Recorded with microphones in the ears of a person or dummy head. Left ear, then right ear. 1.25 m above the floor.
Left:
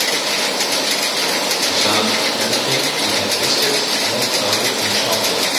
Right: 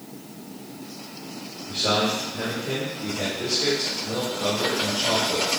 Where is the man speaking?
80° left, 3 m; by 5.5 s 85° left, 5 m.